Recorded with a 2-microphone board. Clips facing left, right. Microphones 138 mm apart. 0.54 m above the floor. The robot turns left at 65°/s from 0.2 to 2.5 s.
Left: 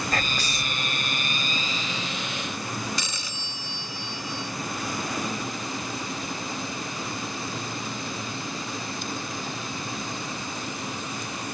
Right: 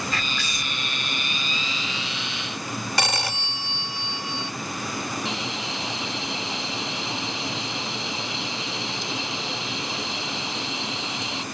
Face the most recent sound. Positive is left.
turn(degrees=-85)